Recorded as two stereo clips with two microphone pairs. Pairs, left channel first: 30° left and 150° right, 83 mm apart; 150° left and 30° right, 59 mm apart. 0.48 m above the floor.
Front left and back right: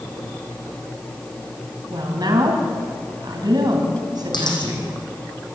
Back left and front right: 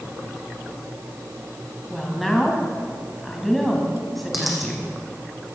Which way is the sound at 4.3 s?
55° left.